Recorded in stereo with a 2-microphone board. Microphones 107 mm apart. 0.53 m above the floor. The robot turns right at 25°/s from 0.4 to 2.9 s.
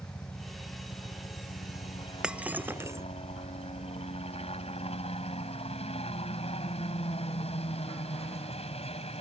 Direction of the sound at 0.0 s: 25° left.